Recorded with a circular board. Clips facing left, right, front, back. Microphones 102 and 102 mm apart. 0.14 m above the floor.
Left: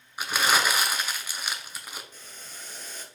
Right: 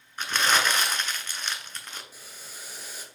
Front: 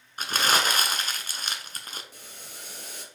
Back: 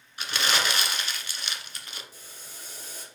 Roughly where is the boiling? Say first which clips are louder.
Even, front 2 dB; ahead.